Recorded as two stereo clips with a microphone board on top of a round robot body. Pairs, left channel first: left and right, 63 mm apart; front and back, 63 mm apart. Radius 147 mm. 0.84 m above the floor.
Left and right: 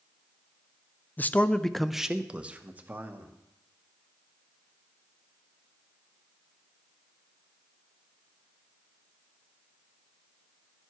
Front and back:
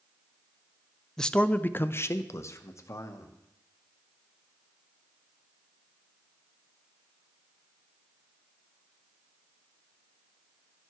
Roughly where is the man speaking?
Left.